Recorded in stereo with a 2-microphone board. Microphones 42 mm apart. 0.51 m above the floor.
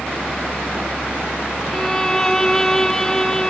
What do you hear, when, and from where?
1.7 s a violin: 10° left (ahead or behind)